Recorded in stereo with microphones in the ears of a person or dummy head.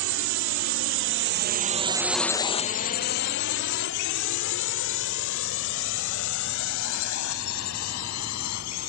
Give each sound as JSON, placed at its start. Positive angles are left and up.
{"t": 0.0, "sound": "a drone", "side_deg": -75}